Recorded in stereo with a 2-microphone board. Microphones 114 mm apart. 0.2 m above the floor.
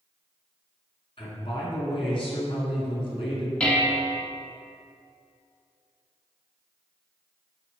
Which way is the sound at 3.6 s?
10° left (ahead or behind).